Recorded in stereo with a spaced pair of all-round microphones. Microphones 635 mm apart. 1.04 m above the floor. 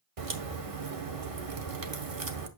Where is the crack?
60° right (ahead or behind), 1.1 m.